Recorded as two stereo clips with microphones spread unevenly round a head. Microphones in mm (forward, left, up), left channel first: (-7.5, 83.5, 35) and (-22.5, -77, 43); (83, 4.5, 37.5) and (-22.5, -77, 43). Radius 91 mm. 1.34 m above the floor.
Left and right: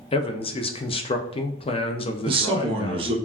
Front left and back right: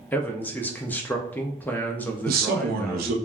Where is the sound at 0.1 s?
105° left, 0.5 m.